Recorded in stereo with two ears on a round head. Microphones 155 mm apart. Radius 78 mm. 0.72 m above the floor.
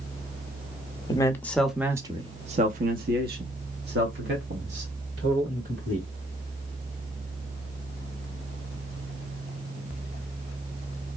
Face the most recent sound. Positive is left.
turn(degrees=-75)  # may be behind; listen again after turning